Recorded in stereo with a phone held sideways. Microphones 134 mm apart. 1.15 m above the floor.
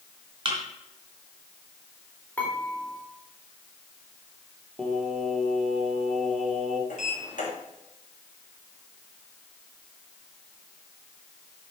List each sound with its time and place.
0.5 s a thud: 35° right (ahead or behind), 2.5 m
2.4 s dishes clattering: 10° left (ahead or behind), 3 m
4.8 s singing: centre (ahead or behind), 1.5 m
6.9 s a sliding door: 80° left, 3 m